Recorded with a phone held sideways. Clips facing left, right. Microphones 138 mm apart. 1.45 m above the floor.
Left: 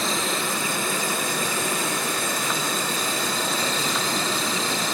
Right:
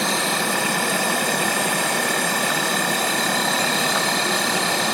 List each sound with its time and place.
0.0 s an insect: 75° right (ahead or behind), 2.5 m